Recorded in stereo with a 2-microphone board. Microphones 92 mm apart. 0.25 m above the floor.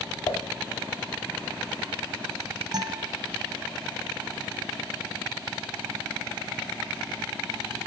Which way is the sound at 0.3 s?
40° left (ahead or behind).